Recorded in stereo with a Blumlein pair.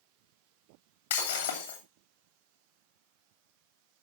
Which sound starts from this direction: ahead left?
Breaking glass, at 1.1 s.